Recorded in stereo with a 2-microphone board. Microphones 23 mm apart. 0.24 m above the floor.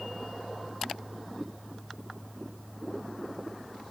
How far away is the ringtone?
No ringtone in this recording.